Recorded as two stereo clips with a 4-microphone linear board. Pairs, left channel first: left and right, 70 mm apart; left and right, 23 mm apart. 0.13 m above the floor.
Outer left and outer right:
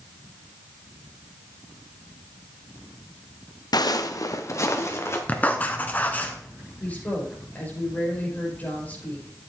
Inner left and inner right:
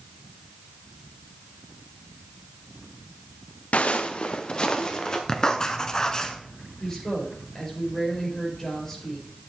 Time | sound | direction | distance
3.7 | footsteps | 70° left (ahead or behind) | 0.7 m
5.3 | writing | 25° left (ahead or behind) | 1.0 m
6.8 | a woman speaking | 20° left (ahead or behind) | 5 m